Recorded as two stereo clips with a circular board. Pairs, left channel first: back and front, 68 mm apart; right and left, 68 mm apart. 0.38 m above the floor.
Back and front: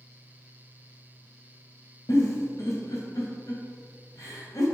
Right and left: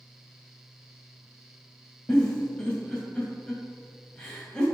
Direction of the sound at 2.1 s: 165° right.